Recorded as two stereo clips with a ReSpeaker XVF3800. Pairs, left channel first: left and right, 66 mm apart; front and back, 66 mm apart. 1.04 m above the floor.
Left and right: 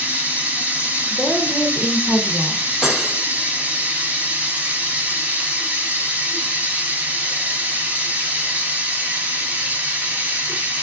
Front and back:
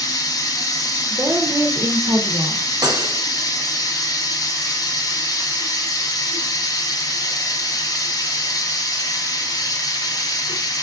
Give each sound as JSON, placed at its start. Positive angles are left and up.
{"t": 0.0, "sound": "running water", "azimuth_deg": -25, "distance_m": 0.8}
{"t": 1.1, "sound": "a woman speaking", "azimuth_deg": 175, "distance_m": 0.5}
{"t": 2.8, "sound": "cutlery clinking", "azimuth_deg": -170, "distance_m": 0.6}